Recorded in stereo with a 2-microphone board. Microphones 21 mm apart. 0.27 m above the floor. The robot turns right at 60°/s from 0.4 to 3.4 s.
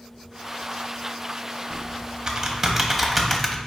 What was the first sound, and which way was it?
Typing on a keyboard, 40° right (ahead or behind).